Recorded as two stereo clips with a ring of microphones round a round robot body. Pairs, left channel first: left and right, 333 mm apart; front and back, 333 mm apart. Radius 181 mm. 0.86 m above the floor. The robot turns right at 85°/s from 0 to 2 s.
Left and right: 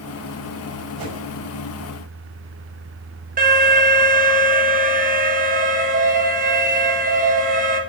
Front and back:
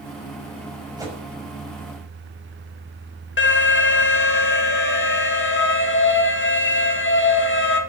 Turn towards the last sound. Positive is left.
turn(degrees=-35)